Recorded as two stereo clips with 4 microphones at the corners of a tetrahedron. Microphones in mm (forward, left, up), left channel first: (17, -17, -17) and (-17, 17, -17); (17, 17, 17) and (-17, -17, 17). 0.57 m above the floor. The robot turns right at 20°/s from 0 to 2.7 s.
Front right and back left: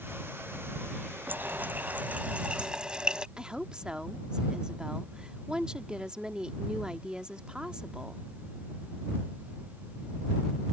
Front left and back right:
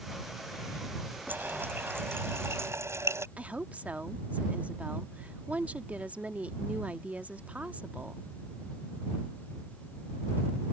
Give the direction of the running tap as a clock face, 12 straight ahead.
6 o'clock.